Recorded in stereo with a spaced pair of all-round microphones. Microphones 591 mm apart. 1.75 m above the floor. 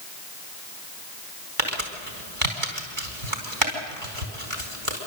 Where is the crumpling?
60° right (ahead or behind), 4.5 m.